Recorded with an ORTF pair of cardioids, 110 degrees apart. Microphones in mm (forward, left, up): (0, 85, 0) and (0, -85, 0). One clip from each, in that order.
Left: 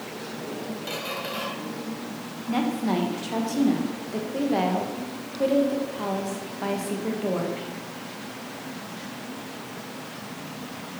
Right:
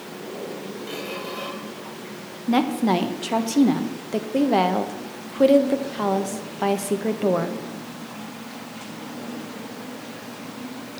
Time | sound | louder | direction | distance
0.9 | a squeak | left 1 dB | 45° left | 2.5 m
2.5 | a woman speaking | right 5 dB | 40° right | 1.1 m